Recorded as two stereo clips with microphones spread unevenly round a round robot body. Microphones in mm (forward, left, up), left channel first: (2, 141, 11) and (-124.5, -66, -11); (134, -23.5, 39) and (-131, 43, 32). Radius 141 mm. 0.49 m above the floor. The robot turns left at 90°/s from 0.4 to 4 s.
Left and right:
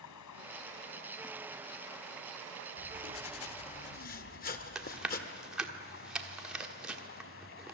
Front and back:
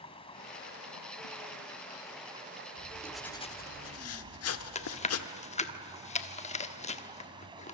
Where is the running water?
55° left, 1.6 m; by 7.7 s 95° left, 1.6 m.